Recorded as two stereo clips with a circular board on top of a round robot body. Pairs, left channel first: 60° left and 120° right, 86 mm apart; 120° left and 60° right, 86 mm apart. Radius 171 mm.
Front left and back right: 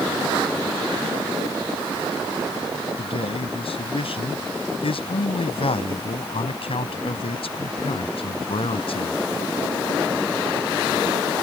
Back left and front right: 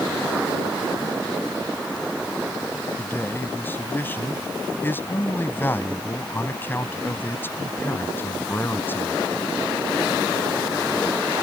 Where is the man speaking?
50° left.